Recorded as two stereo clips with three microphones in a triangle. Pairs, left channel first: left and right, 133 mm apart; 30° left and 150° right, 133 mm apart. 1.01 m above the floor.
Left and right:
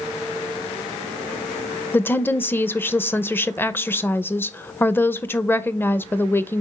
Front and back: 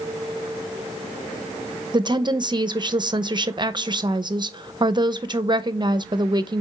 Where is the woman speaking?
160° left, 0.7 m.